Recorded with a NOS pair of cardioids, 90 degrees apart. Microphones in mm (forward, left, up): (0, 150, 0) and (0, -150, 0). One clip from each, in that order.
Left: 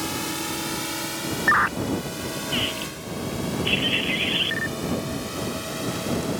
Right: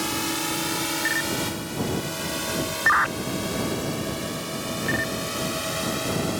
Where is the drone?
25° right; by 6.4 s 40° right.